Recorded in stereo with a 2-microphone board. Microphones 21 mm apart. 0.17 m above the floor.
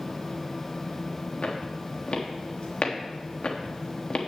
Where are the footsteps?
70° left (ahead or behind), 4 m; by 4.3 s 55° left (ahead or behind), 2.5 m.